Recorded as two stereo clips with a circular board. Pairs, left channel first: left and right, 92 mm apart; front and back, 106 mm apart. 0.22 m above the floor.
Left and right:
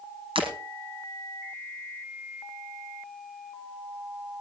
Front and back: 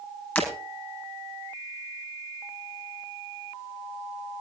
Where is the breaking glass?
75° right, 4.5 m.